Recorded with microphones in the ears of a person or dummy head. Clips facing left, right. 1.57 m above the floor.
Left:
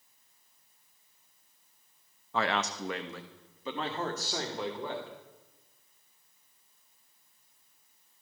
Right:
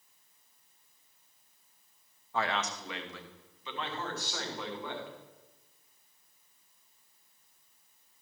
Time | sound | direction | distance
2.3 | a man speaking | 60° left (ahead or behind) | 0.7 m